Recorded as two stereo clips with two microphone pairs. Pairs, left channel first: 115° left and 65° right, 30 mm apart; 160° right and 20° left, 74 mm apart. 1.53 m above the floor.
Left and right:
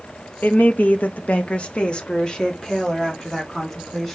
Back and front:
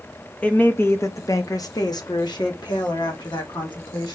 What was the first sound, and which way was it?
A woman speaking, 130° left.